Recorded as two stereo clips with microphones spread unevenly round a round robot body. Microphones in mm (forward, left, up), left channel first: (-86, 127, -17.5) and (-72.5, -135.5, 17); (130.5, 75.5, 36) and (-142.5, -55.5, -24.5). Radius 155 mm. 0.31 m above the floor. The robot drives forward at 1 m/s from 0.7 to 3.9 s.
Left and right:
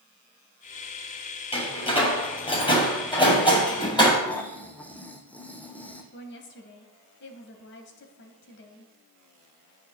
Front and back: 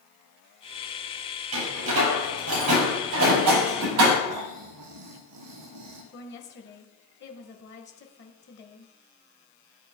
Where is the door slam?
160° left, 6 m; by 4.2 s 165° left, 8.5 m.